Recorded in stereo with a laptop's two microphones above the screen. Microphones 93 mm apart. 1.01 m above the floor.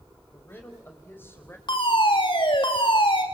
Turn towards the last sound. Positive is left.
turn(degrees=65)  # may be behind; listen again after turning